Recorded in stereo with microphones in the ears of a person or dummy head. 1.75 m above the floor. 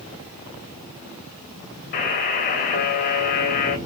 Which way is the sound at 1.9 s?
45° left (ahead or behind).